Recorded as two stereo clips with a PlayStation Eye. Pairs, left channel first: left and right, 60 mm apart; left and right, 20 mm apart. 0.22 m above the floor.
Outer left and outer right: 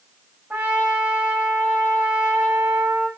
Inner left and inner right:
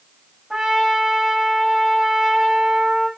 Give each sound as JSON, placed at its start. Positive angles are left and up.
{"t": 0.5, "sound": "a trumpet", "side_deg": -20, "distance_m": 7.5}